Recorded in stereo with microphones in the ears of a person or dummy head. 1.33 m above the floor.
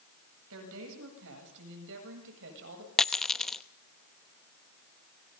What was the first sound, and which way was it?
A woman speaking, 70° right (ahead or behind).